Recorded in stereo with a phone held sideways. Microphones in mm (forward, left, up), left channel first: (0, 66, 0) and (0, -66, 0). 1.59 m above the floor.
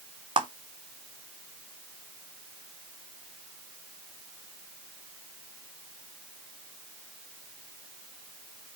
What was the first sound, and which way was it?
A clap, 40° right (ahead or behind).